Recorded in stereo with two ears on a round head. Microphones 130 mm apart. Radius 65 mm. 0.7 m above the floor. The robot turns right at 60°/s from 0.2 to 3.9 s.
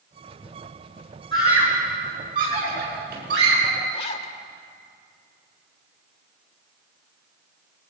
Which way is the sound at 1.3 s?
30° left (ahead or behind).